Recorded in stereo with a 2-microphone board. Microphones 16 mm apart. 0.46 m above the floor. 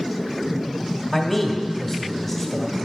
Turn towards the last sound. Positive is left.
turn(degrees=5)  # may be behind; listen again after turning